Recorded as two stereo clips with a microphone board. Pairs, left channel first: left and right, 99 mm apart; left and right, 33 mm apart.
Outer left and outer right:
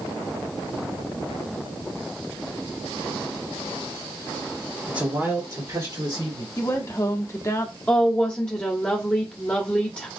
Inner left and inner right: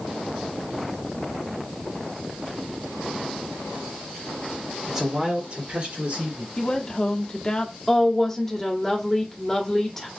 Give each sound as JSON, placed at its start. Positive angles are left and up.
{"t": 4.9, "sound": "a man speaking", "side_deg": -10, "distance_m": 1.5}
{"t": 6.6, "sound": "a woman speaking", "side_deg": 30, "distance_m": 0.8}
{"t": 7.9, "sound": "a woman speaking", "side_deg": 10, "distance_m": 1.3}